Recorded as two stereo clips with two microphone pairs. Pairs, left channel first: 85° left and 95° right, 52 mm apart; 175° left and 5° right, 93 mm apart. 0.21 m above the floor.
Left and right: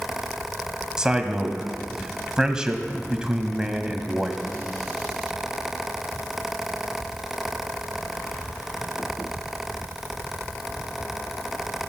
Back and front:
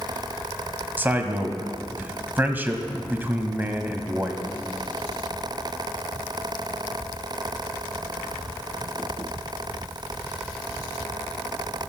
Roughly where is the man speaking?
Ahead right.